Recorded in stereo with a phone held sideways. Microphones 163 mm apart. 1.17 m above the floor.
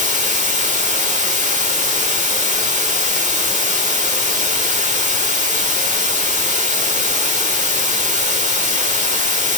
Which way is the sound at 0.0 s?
50° right (ahead or behind).